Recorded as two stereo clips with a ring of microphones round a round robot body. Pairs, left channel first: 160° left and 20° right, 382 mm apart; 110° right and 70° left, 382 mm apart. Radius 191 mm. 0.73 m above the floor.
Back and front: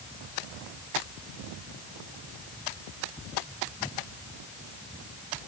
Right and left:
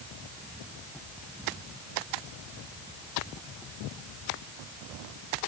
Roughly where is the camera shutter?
No camera shutter in this recording.